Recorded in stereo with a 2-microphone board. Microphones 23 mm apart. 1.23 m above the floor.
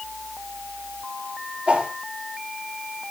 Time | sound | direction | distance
1.7 | a whoosh | 50° right (ahead or behind) | 4 m